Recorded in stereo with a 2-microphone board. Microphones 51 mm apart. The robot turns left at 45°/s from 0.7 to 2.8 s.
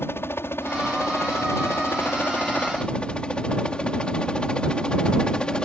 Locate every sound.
0.0 s a helicopter: 50° left (ahead or behind); by 5.6 s 20° left (ahead or behind)